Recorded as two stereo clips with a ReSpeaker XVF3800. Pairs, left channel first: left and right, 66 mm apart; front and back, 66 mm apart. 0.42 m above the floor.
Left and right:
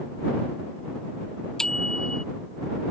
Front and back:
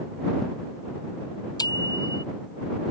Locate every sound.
1.6 s a bicycle bell: 10° left